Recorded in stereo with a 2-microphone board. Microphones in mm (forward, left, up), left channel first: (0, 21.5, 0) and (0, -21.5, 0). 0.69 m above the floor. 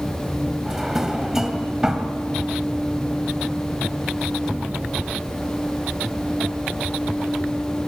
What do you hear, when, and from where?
0.7 s a drawer: 10° right (ahead or behind), 2 m